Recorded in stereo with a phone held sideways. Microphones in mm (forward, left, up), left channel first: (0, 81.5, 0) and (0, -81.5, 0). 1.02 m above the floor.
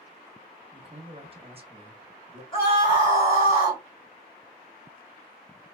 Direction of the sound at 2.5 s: 35° left (ahead or behind).